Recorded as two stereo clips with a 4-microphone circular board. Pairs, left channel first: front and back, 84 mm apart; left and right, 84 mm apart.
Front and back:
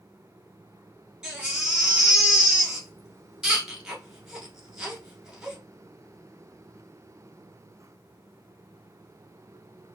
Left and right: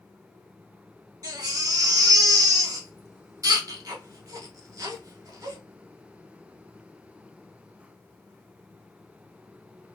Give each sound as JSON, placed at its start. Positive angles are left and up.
{"t": 1.2, "sound": "a baby crying", "azimuth_deg": -100, "distance_m": 0.8}